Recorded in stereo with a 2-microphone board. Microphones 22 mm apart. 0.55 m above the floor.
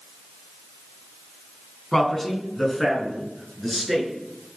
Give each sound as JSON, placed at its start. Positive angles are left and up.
{"t": 1.9, "sound": "a man speaking", "side_deg": 20, "distance_m": 5.0}